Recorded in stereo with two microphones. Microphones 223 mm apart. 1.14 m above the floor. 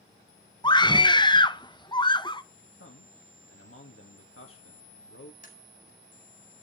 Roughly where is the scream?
Centre.